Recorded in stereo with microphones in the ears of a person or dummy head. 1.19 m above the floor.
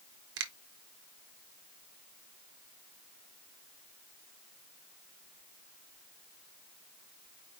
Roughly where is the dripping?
I don't hear dripping.